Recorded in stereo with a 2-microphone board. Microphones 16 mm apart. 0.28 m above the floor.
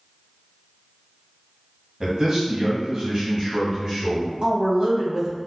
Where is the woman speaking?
45° right (ahead or behind), 1.7 m.